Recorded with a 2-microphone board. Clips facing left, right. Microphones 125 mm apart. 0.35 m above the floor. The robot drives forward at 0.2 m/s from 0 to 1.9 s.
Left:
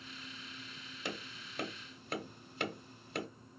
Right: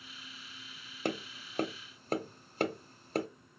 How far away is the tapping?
About 0.5 m.